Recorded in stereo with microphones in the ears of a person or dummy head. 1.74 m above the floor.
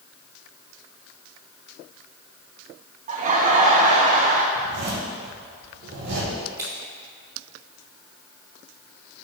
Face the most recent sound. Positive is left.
turn(degrees=-15)  # may be behind; listen again after turning